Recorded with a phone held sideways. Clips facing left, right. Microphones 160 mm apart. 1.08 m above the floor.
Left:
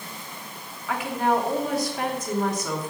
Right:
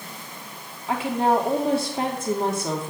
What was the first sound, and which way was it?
A woman speaking, 30° right (ahead or behind).